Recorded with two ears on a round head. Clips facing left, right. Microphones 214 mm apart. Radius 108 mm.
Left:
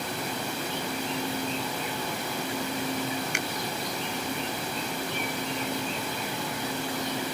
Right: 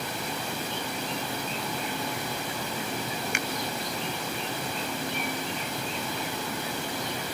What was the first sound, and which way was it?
A finger snap, 65° right (ahead or behind).